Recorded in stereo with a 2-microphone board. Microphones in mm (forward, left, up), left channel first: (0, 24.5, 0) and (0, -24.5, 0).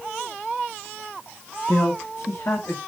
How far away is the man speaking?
About 1.0 m.